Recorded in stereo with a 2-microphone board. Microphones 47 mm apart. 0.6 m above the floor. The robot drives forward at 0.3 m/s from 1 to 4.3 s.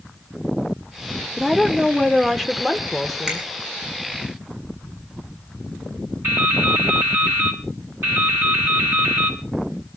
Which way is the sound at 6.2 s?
60° right (ahead or behind).